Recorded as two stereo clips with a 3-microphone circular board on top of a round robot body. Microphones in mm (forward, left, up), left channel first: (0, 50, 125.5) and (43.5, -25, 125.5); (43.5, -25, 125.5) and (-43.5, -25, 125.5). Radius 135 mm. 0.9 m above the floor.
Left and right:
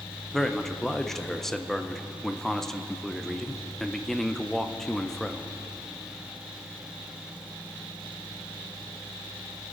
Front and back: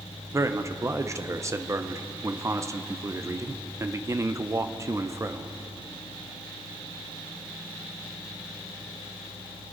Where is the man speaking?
155° right, 0.8 m.